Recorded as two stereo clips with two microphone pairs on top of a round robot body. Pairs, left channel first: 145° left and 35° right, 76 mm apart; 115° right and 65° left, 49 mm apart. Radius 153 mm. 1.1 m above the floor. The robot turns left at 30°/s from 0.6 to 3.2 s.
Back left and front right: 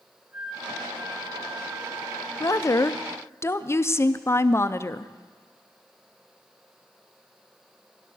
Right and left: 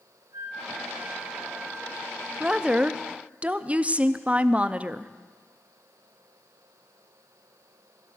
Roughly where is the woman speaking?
Behind left.